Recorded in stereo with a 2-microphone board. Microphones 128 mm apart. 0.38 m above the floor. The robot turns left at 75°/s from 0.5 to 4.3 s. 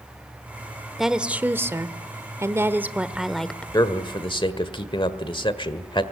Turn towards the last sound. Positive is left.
turn(degrees=85)